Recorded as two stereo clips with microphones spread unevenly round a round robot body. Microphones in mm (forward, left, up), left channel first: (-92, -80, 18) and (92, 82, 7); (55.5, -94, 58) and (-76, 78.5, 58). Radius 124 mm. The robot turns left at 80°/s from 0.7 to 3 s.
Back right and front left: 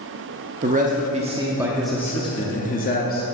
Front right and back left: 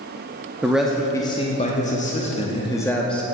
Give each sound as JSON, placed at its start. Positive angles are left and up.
{"t": 0.6, "sound": "a man speaking", "azimuth_deg": 50, "distance_m": 0.7}